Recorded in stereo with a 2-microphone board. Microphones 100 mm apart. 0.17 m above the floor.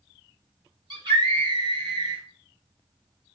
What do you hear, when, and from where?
0.9 s a scream: 50° right (ahead or behind), 2.5 m